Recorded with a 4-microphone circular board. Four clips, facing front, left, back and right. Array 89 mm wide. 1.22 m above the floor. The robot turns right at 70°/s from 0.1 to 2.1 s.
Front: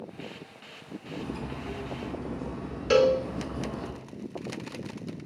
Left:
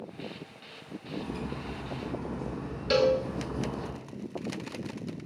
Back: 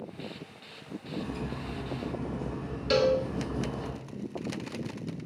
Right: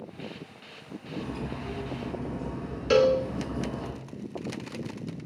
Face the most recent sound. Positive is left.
turn(degrees=-40)